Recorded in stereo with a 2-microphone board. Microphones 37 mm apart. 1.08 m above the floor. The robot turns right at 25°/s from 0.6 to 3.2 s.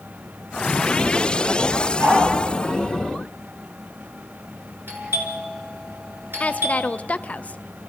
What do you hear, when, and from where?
2.0 s a dog barking: 60° right (ahead or behind), 10 m; by 2.2 s 55° right (ahead or behind), 10 m
4.9 s a doorbell: 75° right (ahead or behind), 6 m
6.4 s a woman speaking: 40° left (ahead or behind), 0.6 m